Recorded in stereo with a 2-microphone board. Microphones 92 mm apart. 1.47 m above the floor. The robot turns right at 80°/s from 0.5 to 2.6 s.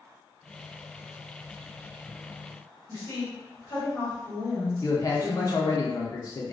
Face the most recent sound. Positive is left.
turn(degrees=40)  # may be behind; listen again after turning